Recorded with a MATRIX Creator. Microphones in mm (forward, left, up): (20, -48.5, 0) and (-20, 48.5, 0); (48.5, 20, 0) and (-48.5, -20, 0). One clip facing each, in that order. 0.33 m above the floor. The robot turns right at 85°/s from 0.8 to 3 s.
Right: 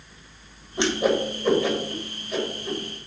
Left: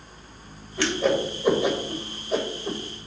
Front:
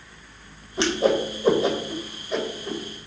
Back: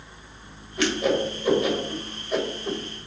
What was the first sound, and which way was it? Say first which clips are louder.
A whoosh: right 1 dB, front 2 dB; 15° right.